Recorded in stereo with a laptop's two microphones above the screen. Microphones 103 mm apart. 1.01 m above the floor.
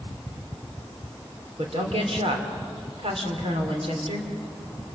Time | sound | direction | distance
1.6 | a woman speaking | 75° right (ahead or behind) | 3.5 m